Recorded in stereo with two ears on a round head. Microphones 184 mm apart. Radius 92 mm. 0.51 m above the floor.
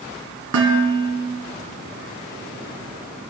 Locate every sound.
0.5 s dishes clattering: 70° right (ahead or behind), 3.5 m